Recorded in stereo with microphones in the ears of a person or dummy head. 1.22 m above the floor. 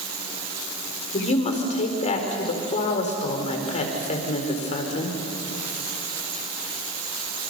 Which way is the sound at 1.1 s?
35° left (ahead or behind).